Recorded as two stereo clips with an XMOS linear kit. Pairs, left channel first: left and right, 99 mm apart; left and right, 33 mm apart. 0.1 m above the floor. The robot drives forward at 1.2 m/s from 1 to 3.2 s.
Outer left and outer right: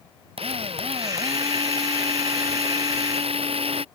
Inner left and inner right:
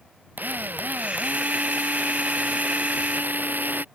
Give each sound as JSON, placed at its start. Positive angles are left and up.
{"t": 0.4, "sound": "a drill", "side_deg": -75}